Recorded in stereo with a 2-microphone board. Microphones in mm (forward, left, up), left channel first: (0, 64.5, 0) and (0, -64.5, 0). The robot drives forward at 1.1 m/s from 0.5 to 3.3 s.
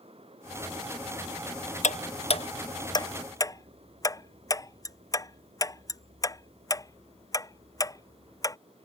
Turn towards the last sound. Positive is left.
turn(degrees=25)  # may be behind; listen again after turning